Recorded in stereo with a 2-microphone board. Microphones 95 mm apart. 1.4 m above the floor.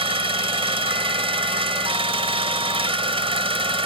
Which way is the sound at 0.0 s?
75° right (ahead or behind).